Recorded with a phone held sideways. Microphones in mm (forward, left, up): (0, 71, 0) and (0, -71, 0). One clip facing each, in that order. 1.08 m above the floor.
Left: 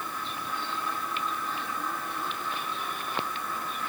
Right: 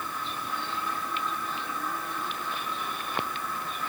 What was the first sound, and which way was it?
Only background noise.